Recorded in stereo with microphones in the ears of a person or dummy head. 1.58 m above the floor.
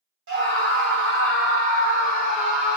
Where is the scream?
70° right (ahead or behind), 2.5 m; by 2.8 s 40° right (ahead or behind), 2 m.